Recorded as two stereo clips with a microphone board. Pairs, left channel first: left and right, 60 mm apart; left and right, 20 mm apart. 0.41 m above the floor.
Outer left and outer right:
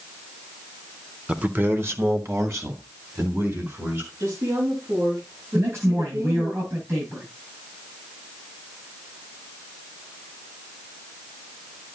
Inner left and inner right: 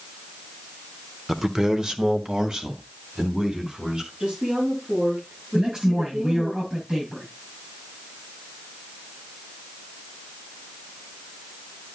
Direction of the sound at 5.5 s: 45° right (ahead or behind).